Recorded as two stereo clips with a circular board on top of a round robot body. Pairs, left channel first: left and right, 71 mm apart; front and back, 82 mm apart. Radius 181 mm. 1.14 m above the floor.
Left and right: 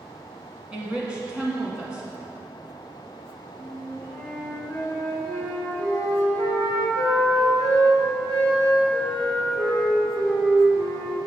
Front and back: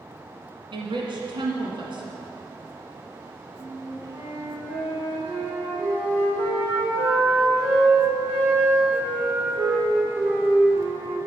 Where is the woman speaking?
160° right, 1.6 m.